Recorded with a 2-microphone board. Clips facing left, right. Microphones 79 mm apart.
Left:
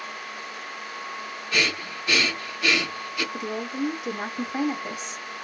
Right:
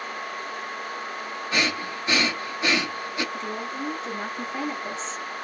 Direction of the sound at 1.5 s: 25° right (ahead or behind).